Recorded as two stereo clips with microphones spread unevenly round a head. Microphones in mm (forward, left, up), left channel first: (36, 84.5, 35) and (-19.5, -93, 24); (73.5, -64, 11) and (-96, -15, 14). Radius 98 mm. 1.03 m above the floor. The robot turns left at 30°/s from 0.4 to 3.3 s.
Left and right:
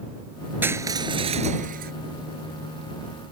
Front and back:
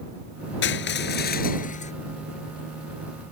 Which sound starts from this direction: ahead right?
Crushing, at 0.6 s.